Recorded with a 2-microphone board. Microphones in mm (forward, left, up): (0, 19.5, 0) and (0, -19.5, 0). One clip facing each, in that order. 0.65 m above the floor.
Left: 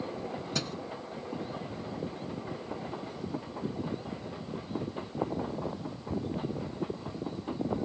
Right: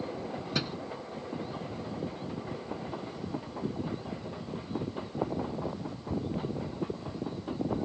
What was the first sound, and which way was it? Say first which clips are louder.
A thud: right 3 dB; 20° right (ahead or behind).